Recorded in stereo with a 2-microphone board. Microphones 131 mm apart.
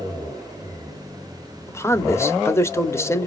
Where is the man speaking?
20° left (ahead or behind), 1.0 m.